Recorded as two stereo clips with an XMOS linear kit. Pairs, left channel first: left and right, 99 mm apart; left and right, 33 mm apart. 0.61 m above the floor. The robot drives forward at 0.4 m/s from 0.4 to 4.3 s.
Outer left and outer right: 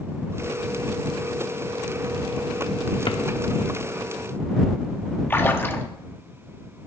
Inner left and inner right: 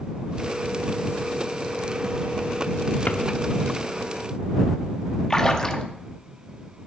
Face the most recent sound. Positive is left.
turn(degrees=20)  # may be behind; listen again after turning